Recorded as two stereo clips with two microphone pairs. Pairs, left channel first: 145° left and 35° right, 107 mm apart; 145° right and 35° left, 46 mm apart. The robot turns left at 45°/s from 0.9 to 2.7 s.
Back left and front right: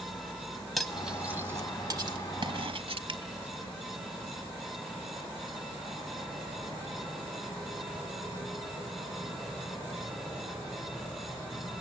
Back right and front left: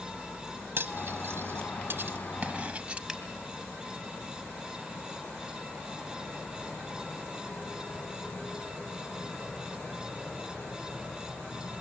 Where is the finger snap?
50° right, 1.8 m.